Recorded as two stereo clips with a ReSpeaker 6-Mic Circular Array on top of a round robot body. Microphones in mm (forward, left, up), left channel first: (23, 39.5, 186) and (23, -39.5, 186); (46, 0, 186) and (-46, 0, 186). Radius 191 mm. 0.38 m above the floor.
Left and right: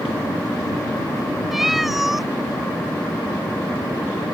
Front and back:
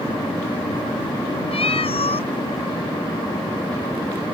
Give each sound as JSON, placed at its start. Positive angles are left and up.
{"t": 1.5, "sound": "a cat meowing", "azimuth_deg": -5}